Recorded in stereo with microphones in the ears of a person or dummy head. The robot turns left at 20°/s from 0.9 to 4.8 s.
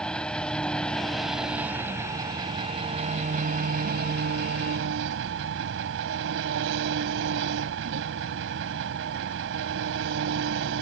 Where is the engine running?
5° left; by 10.8 s 70° right.